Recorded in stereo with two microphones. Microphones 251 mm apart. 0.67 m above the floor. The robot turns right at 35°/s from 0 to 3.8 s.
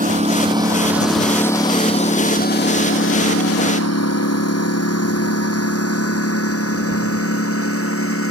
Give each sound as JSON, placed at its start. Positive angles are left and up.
{"t": 0.0, "sound": "a lawn mower", "side_deg": -30}